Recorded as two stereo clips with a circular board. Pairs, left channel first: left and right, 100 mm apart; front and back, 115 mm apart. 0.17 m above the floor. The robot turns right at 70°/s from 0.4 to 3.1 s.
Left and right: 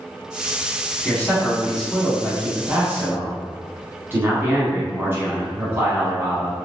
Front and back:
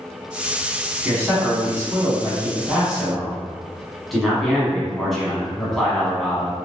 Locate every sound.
1.1 s a man speaking: 130° left, 1.1 m; by 6.5 s 90° right, 1.1 m